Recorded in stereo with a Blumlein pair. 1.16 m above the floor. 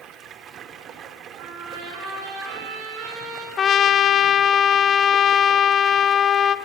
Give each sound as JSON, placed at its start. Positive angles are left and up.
{"t": 0.0, "sound": "running water", "azimuth_deg": -30, "distance_m": 1.6}
{"t": 1.4, "sound": "a trumpet", "azimuth_deg": -45, "distance_m": 8.5}
{"t": 3.6, "sound": "a trumpet", "azimuth_deg": 25, "distance_m": 0.8}